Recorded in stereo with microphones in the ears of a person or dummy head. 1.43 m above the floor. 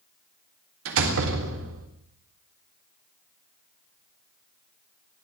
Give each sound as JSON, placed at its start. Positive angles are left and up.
{"t": 0.8, "sound": "a door slam", "side_deg": -80, "distance_m": 3.5}